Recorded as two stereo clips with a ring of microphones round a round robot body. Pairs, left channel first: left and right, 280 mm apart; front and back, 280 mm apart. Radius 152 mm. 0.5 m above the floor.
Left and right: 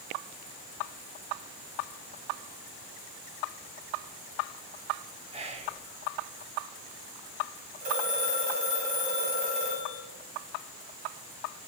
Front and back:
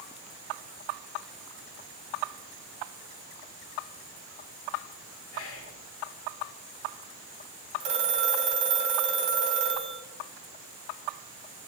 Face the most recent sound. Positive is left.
turn(degrees=-155)